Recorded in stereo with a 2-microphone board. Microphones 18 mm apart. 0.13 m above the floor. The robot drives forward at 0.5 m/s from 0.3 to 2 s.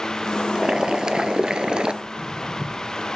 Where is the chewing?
I don't hear chewing.